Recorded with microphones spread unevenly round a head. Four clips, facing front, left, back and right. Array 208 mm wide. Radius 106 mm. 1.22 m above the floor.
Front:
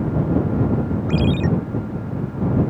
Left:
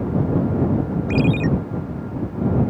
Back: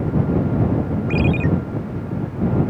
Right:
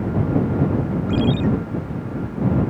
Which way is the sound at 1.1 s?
75° left.